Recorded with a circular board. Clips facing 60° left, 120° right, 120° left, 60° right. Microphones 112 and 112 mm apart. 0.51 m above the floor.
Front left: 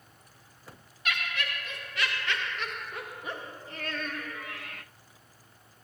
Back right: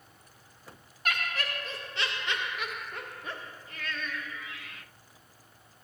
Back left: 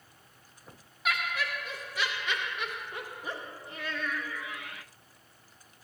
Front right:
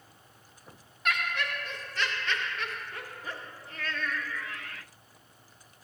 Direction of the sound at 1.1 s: 155° right.